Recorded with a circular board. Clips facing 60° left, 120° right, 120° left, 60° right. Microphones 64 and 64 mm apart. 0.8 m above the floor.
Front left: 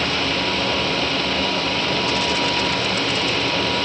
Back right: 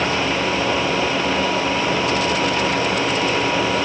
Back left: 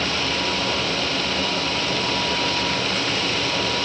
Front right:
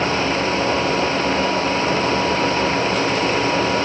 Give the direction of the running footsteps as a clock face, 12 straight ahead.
No running footsteps in this recording.